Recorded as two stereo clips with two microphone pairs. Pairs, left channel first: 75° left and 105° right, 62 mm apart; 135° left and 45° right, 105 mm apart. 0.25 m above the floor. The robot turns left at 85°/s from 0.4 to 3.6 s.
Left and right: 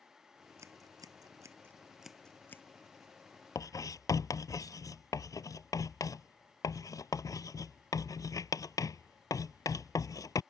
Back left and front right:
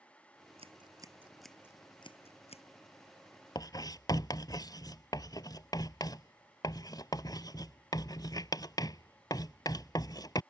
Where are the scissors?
65° right; by 2.6 s 120° left.